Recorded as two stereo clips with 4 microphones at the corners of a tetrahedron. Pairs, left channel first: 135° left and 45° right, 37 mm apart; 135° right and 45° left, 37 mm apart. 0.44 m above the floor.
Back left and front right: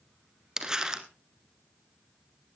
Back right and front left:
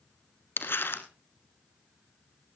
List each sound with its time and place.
0.6 s crumpling: 120° right, 1.6 m